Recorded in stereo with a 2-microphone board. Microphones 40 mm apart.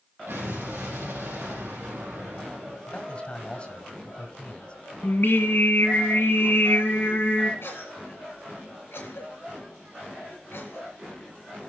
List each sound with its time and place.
0.3 s an explosion: 65° right (ahead or behind), 4.5 m
2.9 s a man speaking: 30° left (ahead or behind), 1.5 m
5.0 s singing: 70° left (ahead or behind), 1.2 m
7.6 s a cough: 70° left (ahead or behind), 5 m